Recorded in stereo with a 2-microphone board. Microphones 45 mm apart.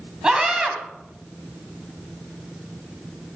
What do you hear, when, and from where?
0.2 s a scream: 20° right (ahead or behind), 1.9 m